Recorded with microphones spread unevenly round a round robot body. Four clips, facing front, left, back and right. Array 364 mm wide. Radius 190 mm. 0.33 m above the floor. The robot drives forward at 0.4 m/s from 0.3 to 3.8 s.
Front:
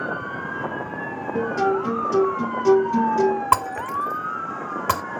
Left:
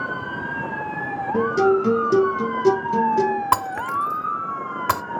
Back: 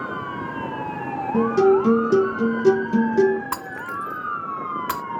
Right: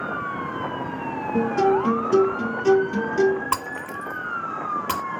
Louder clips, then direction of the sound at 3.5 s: Left 6 dB, front 8 dB; 35° left.